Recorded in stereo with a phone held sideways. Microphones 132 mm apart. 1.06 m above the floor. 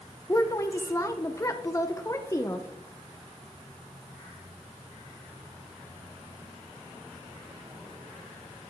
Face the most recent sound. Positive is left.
turn(degrees=25)  # may be behind; listen again after turning